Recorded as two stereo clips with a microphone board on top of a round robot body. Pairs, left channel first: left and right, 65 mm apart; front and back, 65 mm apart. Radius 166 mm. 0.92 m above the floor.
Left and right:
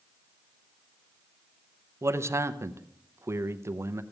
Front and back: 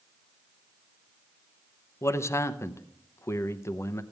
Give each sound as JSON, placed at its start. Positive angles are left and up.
{"t": 2.0, "sound": "a man speaking", "azimuth_deg": -45, "distance_m": 0.9}